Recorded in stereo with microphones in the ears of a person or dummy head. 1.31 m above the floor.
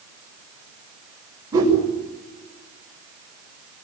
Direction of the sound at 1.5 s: 15° right (ahead or behind).